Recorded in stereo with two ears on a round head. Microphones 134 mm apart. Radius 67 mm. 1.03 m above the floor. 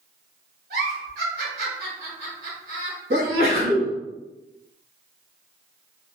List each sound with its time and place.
0.7 s a giggle: 75° right (ahead or behind), 1.2 m
3.1 s a sneeze: 70° right (ahead or behind), 1.6 m